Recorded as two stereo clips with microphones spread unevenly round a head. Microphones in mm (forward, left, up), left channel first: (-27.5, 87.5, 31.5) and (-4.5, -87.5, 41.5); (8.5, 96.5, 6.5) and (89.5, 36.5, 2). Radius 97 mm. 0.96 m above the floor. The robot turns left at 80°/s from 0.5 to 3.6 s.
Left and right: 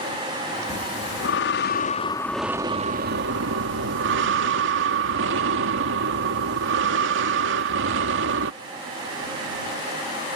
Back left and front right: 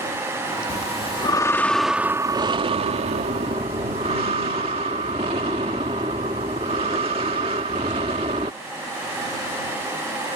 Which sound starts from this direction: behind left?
Breathing, at 0.7 s.